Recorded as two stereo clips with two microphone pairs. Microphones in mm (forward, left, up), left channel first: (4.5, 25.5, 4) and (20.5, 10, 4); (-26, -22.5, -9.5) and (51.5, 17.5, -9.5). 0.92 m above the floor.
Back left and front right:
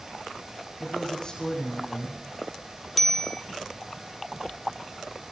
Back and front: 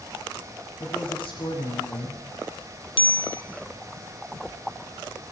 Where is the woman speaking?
170° right, 9.5 m.